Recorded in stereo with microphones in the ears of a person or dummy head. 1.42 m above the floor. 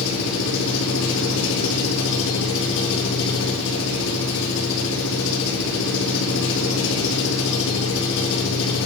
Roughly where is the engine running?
Left.